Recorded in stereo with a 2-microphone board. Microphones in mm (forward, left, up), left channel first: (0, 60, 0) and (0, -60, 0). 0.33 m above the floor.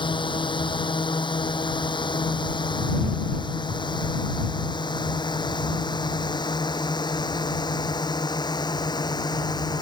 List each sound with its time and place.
0.0 s a drone: 45° left (ahead or behind); by 9.8 s 35° left (ahead or behind)